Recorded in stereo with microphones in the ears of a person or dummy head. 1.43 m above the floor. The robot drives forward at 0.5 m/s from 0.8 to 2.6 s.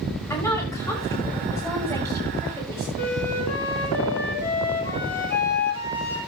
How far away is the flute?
About 4.5 m.